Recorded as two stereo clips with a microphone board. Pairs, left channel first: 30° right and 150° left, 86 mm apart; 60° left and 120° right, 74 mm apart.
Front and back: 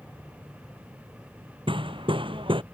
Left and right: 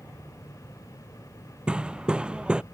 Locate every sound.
1.7 s hammering: 160° left